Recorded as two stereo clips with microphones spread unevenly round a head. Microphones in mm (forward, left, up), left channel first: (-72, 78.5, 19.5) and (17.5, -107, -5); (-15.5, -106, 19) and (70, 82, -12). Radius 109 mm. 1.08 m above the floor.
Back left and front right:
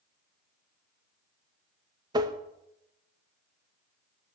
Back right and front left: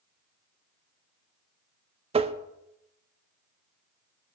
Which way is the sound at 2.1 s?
5° left.